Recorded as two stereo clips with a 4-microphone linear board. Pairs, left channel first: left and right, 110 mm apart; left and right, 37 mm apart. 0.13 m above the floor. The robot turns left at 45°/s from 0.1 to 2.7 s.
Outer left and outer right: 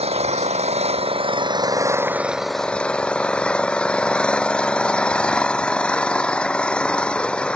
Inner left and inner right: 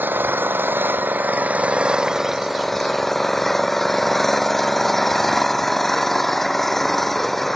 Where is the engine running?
70° right; by 7.6 s 170° left.